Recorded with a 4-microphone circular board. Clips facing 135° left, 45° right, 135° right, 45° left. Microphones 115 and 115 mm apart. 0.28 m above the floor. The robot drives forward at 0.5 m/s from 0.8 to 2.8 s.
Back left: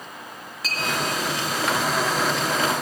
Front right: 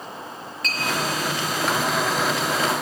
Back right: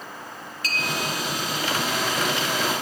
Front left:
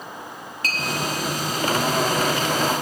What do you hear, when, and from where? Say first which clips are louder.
0.6 s a clink: front right 1 dB, front left 1 dB; 50° left, 1.6 m